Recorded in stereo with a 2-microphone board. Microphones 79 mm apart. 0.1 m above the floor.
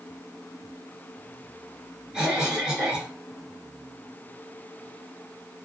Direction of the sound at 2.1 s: 10° right (ahead or behind).